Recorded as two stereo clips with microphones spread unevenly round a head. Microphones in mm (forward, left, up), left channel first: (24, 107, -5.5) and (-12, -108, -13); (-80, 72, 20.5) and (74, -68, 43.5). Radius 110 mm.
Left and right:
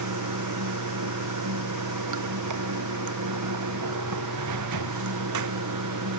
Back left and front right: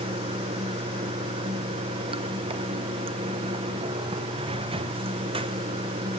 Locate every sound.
0.0 s running water: 110° right, 0.9 m